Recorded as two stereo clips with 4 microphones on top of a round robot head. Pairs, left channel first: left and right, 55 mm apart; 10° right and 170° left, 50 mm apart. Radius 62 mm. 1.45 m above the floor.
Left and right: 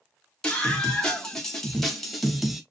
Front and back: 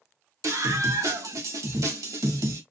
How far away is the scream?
About 3 m.